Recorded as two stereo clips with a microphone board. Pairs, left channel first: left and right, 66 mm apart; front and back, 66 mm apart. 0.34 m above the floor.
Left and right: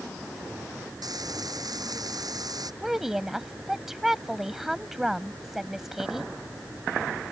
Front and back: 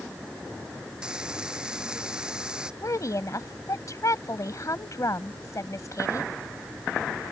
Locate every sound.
1.0 s frying: 100° right
2.8 s a woman speaking: 5° right